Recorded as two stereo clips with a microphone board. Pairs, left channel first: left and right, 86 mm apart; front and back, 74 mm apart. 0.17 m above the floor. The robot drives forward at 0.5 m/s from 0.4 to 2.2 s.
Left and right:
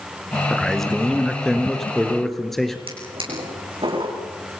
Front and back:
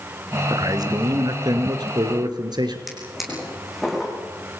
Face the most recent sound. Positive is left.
turn(degrees=-90)